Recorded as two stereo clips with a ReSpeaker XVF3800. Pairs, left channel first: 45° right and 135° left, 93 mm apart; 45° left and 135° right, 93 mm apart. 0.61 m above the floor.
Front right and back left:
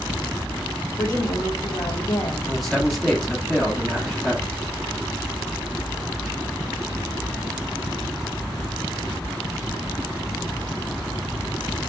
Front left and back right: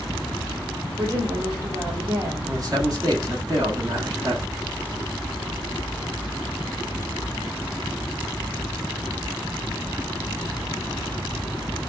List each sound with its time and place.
1.0 s a woman speaking: 95° right, 1.1 m
2.4 s a man speaking: 130° right, 1.3 m